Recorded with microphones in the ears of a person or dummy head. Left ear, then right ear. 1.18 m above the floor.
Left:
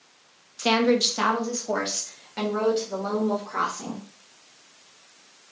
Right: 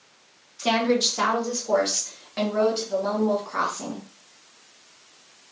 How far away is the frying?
I don't hear frying.